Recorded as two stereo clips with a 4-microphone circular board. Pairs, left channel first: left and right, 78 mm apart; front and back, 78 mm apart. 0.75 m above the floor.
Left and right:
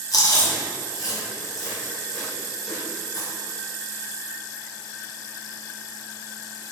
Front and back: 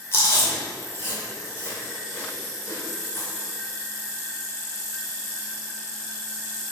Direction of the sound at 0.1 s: 55° left.